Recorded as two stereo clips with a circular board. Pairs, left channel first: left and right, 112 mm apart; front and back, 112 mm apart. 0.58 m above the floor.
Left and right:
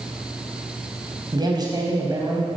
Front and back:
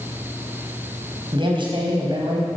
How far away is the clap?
I don't hear a clap.